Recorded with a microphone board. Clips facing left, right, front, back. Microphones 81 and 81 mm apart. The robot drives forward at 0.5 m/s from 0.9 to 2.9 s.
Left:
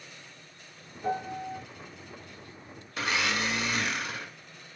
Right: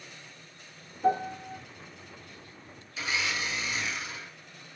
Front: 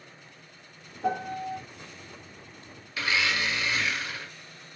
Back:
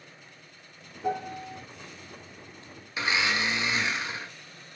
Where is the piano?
30° right, 1.2 m; by 1.6 s 40° right, 1.0 m.